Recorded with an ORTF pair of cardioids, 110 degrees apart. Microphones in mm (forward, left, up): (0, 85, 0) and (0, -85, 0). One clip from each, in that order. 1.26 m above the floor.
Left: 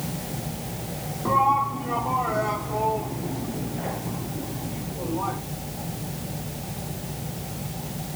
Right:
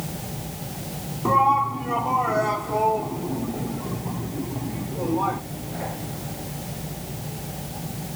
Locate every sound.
1.2 s a shout: 30° right; by 5.4 s 40° right